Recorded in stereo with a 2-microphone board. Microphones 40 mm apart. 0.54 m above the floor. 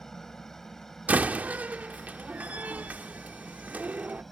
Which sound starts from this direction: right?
A door slam, at 1.1 s.